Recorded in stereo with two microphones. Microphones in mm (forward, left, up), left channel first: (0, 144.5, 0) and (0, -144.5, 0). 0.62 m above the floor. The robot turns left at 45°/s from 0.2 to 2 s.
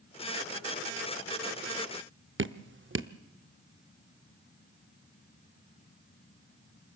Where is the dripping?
45° right (ahead or behind), 0.7 m.